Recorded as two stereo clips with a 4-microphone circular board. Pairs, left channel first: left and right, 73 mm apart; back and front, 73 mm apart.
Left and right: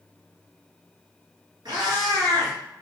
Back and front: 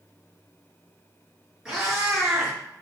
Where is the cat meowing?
80° right, 1.3 m.